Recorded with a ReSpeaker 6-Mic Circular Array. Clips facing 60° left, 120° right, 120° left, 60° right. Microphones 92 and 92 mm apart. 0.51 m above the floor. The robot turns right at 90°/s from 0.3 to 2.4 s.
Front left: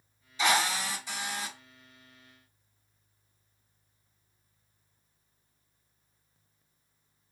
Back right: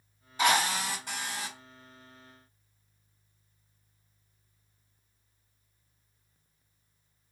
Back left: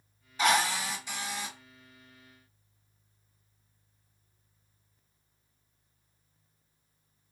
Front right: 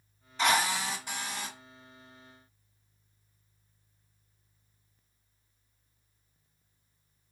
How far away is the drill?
About 1.7 m.